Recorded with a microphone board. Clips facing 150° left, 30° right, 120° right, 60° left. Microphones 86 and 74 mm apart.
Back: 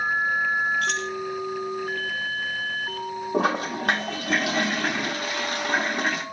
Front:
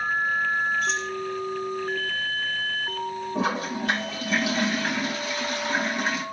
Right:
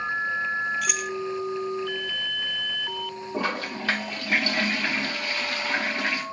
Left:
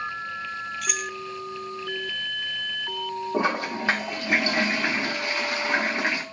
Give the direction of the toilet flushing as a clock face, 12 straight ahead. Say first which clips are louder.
Back 4 dB, left 3 dB; 8 o'clock.